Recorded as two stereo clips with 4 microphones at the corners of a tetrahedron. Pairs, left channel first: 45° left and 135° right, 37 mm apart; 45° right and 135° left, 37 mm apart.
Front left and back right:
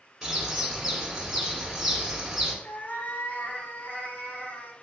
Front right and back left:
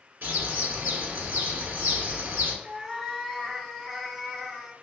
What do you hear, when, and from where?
0.2 s a bird: 145° left, 1.6 m
2.6 s a cat meowing: 50° left, 0.8 m